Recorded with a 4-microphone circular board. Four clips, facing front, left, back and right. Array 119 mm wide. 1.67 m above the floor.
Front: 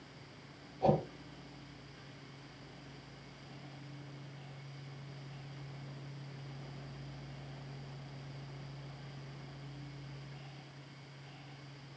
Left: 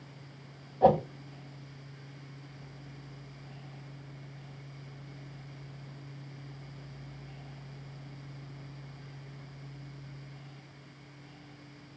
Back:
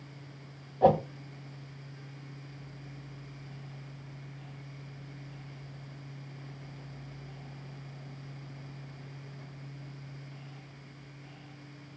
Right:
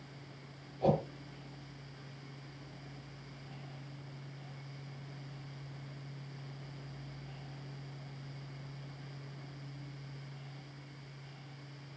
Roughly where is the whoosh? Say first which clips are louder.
Left 8 dB, back 7 dB; behind left.